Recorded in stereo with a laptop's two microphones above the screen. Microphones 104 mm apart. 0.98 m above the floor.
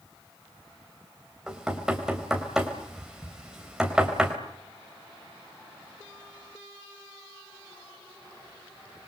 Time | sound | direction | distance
1.5 | knocking | 5° right (ahead or behind) | 3 m